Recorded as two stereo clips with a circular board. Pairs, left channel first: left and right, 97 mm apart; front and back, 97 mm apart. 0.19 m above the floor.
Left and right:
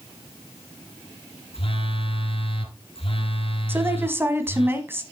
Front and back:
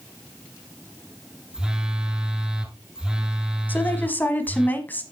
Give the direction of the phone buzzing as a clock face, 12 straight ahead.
9 o'clock.